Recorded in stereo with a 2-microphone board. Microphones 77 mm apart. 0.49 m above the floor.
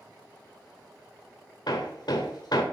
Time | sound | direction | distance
1.7 | hammering | 65° left (ahead or behind) | 1.0 m